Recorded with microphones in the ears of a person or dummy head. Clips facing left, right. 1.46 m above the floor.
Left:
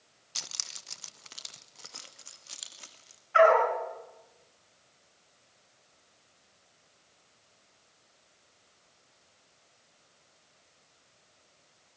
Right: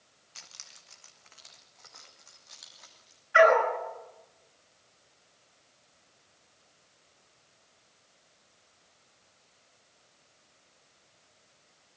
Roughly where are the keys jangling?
Left.